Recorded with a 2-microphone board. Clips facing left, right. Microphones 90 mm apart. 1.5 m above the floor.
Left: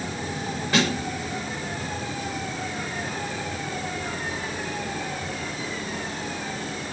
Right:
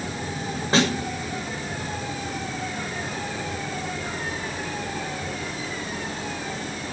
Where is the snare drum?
30° right (ahead or behind), 6.5 m.